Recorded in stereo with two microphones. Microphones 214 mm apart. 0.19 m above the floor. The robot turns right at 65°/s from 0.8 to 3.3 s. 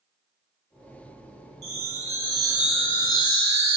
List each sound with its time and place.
1.6 s a chime: 75° right, 0.9 m; by 3.8 s 35° left, 0.9 m